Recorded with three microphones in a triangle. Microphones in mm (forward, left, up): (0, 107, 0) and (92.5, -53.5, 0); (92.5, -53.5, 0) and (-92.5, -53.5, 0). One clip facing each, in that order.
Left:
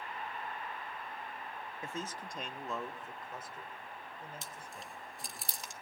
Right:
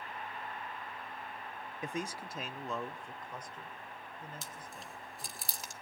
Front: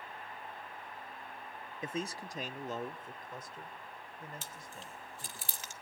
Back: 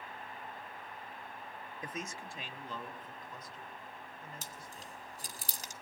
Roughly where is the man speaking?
Ahead.